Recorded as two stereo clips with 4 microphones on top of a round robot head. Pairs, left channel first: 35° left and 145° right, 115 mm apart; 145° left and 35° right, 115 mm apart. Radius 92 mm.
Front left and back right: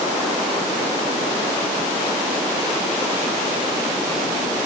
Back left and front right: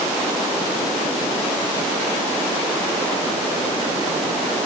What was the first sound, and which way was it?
Only background noise.